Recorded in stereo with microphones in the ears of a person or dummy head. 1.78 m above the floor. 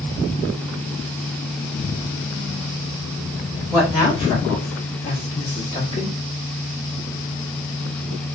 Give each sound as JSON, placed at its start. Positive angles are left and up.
{"t": 3.7, "sound": "a woman speaking", "side_deg": 10, "distance_m": 0.9}